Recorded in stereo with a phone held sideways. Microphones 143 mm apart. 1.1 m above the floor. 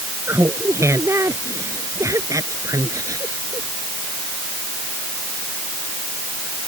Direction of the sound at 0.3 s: 20° right (ahead or behind).